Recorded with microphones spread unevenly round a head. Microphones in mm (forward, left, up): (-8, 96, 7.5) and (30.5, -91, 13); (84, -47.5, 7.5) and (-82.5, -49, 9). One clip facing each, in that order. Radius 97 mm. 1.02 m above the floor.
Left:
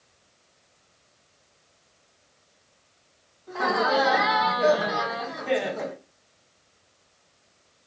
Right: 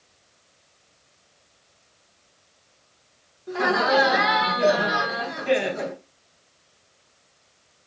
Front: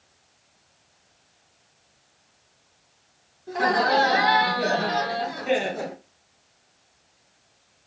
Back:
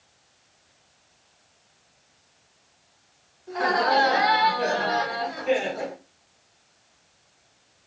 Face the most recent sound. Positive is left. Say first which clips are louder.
# right 3 dB, front 1 dB
turn(degrees=-35)